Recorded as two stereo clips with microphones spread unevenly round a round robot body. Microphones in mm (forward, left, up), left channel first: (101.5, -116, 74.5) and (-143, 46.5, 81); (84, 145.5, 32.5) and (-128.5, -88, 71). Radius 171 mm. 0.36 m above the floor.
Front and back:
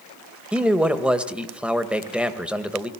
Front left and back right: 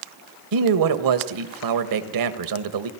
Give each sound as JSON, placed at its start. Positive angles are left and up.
{"t": 0.5, "sound": "a man speaking", "azimuth_deg": -125, "distance_m": 1.9}